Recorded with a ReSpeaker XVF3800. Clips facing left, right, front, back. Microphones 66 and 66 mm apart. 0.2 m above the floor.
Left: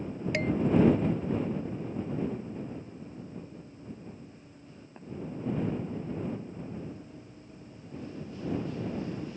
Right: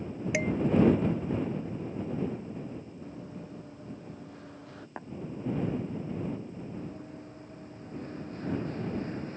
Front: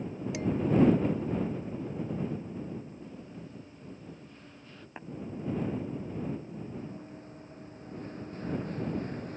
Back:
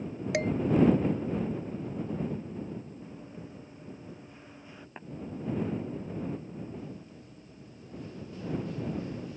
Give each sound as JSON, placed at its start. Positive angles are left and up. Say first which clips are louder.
{"t": 0.3, "sound": "dishes clattering", "louder": "even, back 3 dB", "azimuth_deg": -170}
{"t": 3.0, "sound": "running footsteps", "louder": "right 1 dB, even", "azimuth_deg": -105}
{"t": 5.0, "sound": "tapping", "louder": "right 7 dB, front 2 dB", "azimuth_deg": -85}
{"t": 6.8, "sound": "running footsteps", "louder": "right 1 dB, front 1 dB", "azimuth_deg": -50}